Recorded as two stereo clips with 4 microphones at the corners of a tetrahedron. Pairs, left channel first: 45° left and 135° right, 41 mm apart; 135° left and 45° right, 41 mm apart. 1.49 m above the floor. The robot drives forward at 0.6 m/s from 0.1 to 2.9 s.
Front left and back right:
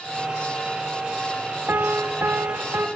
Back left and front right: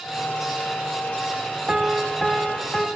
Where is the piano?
115° right, 0.8 m; by 2.9 s 150° right, 1.2 m.